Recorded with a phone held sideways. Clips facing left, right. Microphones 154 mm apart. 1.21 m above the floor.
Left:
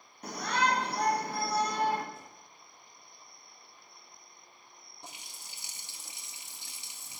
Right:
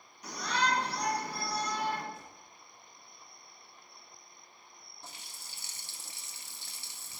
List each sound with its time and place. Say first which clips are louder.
0.2 s a shout: left 2 dB; 50° left (ahead or behind), 1.5 m
2.1 s a whoosh: even; 50° left (ahead or behind), 3 m
5.0 s a running tap: left 2 dB; 15° left (ahead or behind), 0.7 m